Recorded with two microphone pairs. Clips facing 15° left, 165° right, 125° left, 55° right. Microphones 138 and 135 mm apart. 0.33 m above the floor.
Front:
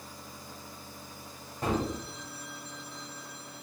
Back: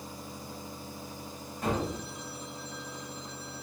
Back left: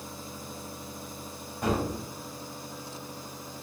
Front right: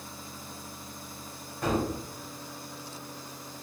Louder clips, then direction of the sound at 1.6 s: Front 1 dB, even; 50° left.